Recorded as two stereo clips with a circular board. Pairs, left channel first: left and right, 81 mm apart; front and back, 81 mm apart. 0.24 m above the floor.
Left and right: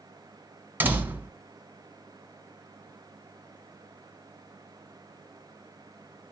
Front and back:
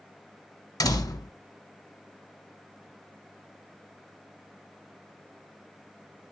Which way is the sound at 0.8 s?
25° right.